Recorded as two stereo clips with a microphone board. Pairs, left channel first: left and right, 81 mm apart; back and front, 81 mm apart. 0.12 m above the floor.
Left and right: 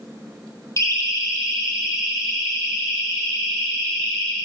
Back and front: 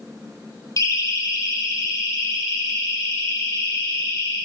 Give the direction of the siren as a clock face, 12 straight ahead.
7 o'clock.